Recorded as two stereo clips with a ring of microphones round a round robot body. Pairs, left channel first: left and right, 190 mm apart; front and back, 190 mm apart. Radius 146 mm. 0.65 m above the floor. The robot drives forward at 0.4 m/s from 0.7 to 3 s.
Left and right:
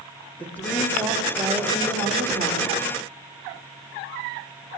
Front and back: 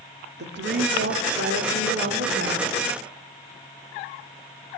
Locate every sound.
0.4 s a woman speaking: 170° left, 2 m; by 2.7 s 175° left, 3 m